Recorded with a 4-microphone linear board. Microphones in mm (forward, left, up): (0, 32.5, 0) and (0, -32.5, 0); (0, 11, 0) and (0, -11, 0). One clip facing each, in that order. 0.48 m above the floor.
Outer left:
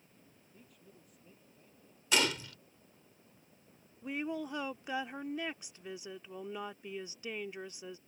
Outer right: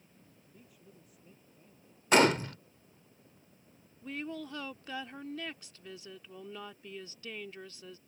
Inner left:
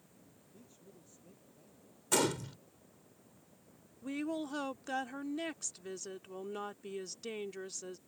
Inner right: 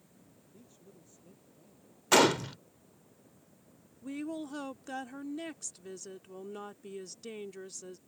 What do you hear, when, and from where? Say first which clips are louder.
0.5 s a man speaking: outer right 1 dB, inner right 1 dB; 5° right (ahead or behind); by 2.0 s centre (ahead or behind)
2.1 s a gunshot: outer right 8 dB, inner right 8 dB; 50° right (ahead or behind)
4.0 s a woman speaking: outer left 2 dB, inner left 1 dB; 20° left (ahead or behind)